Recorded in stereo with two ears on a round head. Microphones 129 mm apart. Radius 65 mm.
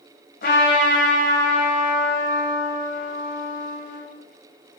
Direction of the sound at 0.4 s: 70° left (ahead or behind).